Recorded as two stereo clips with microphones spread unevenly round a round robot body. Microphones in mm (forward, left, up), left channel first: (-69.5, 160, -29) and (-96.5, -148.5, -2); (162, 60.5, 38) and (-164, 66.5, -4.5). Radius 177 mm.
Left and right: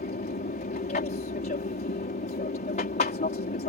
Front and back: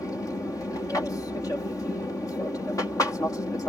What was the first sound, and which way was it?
An aircraft, 80° left.